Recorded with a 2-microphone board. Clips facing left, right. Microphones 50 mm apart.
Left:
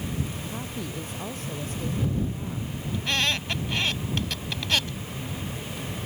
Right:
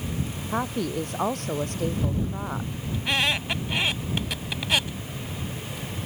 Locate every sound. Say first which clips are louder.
0.5 s a woman speaking: right 7 dB; 60° right (ahead or behind); by 2.7 s 55° right (ahead or behind)
2.9 s a squeak: right 2 dB; 15° right (ahead or behind)